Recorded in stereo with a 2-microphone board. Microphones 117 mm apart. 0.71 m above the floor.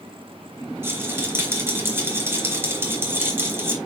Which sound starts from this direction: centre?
A rattle, at 0.8 s.